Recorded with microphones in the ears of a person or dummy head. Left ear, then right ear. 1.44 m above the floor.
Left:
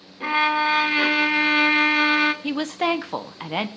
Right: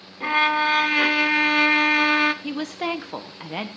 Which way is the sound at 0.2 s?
10° right (ahead or behind).